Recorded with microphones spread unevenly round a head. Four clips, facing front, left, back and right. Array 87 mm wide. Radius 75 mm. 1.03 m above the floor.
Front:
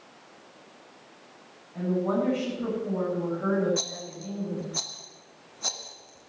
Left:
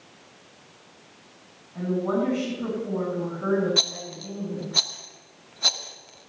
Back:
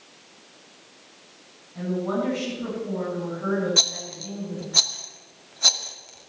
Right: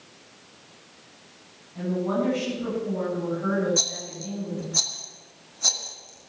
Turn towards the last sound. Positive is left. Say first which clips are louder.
# left 1 dB, back 2 dB
turn(degrees=155)